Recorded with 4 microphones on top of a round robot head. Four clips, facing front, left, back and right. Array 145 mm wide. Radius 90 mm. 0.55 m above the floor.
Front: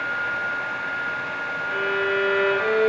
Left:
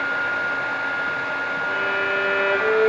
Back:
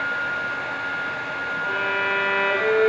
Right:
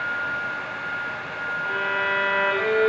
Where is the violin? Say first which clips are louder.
Left 1 dB, front 1 dB; 155° right, 1.4 m.